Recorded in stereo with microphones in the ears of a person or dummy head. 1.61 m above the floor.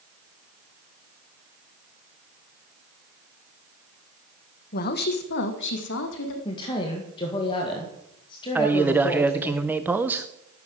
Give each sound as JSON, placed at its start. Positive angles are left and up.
{"t": 4.7, "sound": "a woman speaking", "side_deg": 45, "distance_m": 1.4}
{"t": 6.5, "sound": "a woman speaking", "side_deg": 25, "distance_m": 1.9}
{"t": 8.6, "sound": "a man speaking", "side_deg": -5, "distance_m": 0.8}